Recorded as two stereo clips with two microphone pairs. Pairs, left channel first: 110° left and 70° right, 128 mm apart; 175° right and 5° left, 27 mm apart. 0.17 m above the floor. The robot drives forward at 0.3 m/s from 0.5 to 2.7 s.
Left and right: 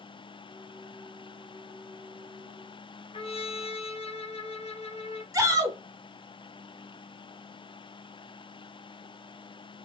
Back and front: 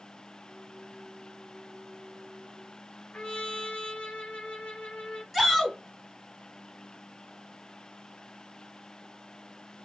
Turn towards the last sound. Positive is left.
turn(degrees=-95)